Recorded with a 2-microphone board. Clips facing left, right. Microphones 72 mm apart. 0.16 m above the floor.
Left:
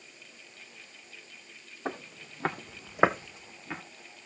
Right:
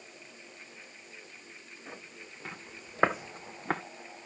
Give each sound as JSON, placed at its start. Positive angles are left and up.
{"t": 1.9, "sound": "footsteps", "side_deg": 75, "distance_m": 2.0}